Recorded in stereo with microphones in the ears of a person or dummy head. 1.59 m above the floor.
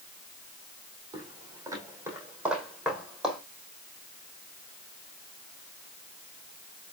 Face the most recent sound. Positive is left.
turn(degrees=0)  # may be behind; listen again after turning